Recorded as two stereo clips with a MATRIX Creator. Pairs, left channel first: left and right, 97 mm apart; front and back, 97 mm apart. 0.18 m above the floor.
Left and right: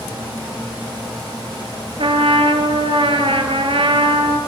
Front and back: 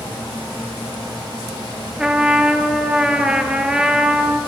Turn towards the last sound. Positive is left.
turn(degrees=-100)